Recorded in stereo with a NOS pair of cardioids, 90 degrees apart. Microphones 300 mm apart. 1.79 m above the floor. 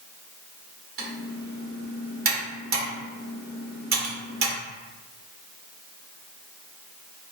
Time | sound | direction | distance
1.0 | typing on a keyboard | 40° right | 1.8 m